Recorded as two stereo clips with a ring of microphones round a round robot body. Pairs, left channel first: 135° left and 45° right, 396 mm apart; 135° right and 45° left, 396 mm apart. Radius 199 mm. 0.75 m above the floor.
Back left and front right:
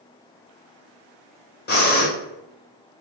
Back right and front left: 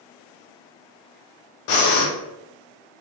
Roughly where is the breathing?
Behind.